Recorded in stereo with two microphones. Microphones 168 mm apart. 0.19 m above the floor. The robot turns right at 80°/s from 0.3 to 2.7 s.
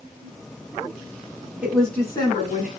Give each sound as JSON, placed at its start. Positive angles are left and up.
{"t": 1.6, "sound": "a woman speaking", "azimuth_deg": -15, "distance_m": 1.7}